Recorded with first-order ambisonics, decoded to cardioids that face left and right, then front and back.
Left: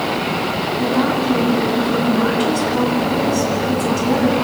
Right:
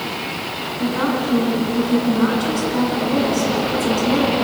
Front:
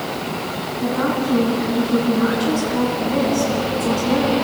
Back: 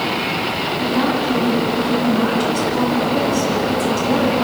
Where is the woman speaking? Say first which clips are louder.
Left 1 dB, even; 125° left, 7.5 m.